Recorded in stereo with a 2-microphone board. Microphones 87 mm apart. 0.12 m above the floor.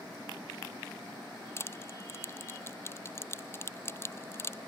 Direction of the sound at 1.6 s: 30° left (ahead or behind).